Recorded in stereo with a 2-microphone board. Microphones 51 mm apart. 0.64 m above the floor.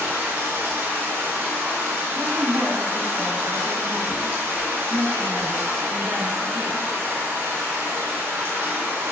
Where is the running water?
50° right (ahead or behind), 0.8 m.